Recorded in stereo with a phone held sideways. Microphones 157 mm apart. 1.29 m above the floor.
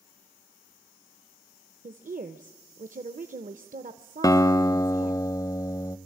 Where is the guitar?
20° left (ahead or behind), 0.5 m.